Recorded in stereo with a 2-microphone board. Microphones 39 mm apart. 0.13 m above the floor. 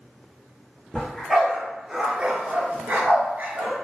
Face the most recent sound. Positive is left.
turn(degrees=-50)  # may be behind; listen again after turning